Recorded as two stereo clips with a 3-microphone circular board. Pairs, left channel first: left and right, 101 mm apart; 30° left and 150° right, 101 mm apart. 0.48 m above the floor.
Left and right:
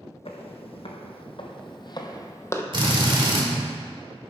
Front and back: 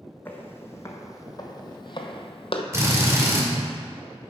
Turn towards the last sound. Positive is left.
turn(degrees=-95)